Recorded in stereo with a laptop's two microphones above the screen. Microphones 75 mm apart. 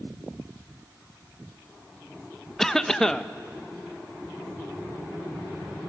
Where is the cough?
5° left (ahead or behind), 0.6 m.